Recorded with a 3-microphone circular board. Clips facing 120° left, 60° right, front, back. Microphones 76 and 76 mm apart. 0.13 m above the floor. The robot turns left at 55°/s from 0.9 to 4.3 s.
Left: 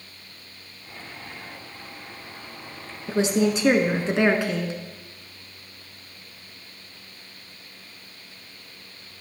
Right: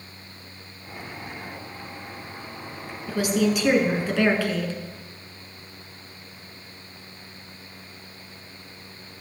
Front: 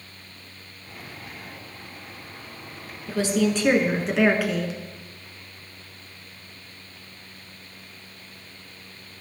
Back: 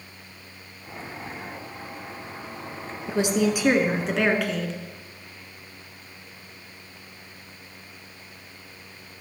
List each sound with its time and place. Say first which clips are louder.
3.1 s a woman speaking: left 1 dB, even; 145° left, 1.1 m; by 4.8 s 80° left, 1.1 m